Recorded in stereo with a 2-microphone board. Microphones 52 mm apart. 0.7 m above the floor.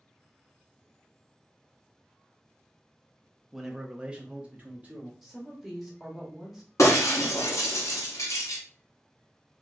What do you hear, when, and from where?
3.5 s a man speaking: 5° right (ahead or behind), 0.9 m; by 5.1 s 25° right (ahead or behind), 1.3 m
5.2 s a woman speaking: 10° right (ahead or behind), 1.2 m
6.8 s breaking glass: 75° left (ahead or behind), 1.8 m